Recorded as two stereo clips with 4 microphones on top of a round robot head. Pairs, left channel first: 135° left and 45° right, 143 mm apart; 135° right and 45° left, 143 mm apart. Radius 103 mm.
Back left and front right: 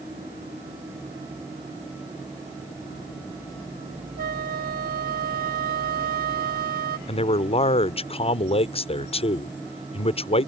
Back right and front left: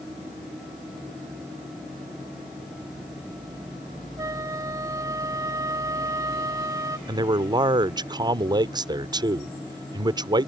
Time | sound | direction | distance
4.2 | a flute | 25° right | ?
7.1 | a man speaking | 100° left | ?